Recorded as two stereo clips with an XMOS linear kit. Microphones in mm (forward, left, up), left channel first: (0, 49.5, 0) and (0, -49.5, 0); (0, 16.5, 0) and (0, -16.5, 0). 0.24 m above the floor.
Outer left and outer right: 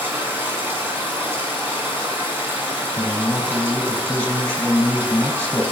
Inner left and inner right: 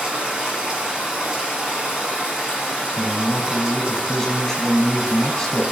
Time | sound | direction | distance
0.0 | running water | 25° right (ahead or behind) | 1.9 m
3.0 | a man speaking | 15° left (ahead or behind) | 1.2 m